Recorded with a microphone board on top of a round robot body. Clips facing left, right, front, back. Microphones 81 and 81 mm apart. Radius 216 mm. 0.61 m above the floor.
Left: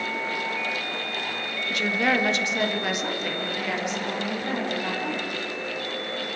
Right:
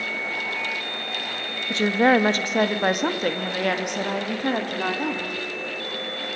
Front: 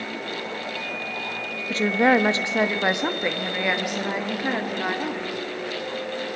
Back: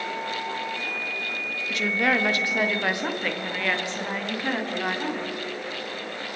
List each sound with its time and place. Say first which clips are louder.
1.7 s a woman speaking: right 6 dB, front 5 dB; 45° right, 1.5 m; by 5.3 s 85° right, 3 m